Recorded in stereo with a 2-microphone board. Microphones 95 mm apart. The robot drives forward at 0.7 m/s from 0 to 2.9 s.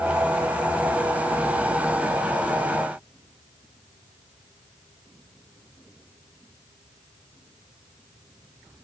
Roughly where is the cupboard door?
No cupboard door in this recording.